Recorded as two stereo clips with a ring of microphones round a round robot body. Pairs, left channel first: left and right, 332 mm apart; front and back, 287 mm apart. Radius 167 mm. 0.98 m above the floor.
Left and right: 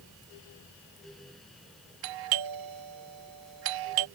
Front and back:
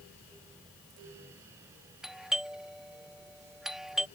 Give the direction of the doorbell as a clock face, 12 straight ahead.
3 o'clock.